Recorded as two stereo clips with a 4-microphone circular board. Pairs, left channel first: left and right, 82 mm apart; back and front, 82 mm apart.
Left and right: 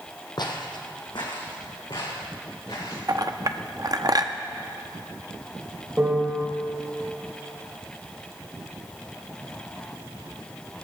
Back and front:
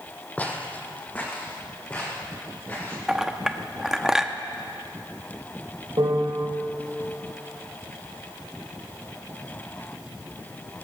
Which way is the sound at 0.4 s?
110° left.